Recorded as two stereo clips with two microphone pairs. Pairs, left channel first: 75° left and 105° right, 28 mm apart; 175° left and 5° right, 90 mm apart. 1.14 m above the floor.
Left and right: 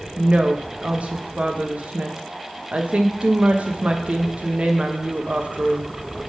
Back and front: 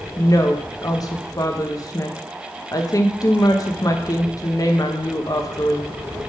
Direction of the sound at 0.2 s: 140° right.